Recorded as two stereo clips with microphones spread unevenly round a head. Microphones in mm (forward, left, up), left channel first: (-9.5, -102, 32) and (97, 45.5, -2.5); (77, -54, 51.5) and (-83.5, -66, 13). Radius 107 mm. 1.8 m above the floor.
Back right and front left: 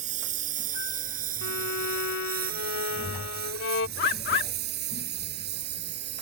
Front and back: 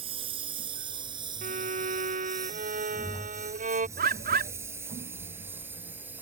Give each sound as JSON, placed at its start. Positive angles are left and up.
{"t": 0.0, "sound": "a lawn mower", "azimuth_deg": 115}
{"t": 1.4, "sound": "a violin", "azimuth_deg": -135}
{"t": 4.0, "sound": "a bird", "azimuth_deg": -145}